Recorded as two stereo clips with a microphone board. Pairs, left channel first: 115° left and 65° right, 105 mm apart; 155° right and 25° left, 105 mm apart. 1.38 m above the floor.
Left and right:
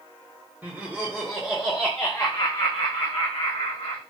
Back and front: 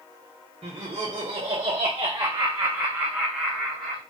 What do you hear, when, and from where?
0.6 s laughter: 5° left, 1.5 m; by 4.0 s 120° left, 1.5 m